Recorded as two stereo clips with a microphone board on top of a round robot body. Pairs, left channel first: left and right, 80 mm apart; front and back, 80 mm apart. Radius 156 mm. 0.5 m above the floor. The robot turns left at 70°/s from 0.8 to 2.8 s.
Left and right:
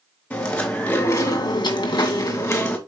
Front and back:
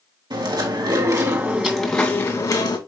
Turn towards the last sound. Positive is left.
turn(degrees=20)